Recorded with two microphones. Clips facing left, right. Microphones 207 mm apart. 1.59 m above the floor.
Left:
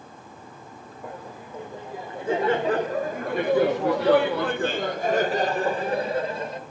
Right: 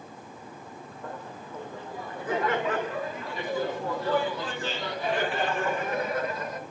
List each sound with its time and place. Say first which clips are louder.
1.0 s laughter: left 2 dB; 10° left (ahead or behind), 2.5 m; by 6.6 s 25° left (ahead or behind), 2.5 m